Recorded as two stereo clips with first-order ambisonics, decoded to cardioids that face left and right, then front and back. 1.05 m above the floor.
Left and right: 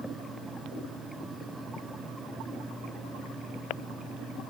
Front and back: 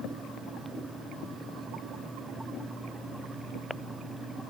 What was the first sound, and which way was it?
Only background noise.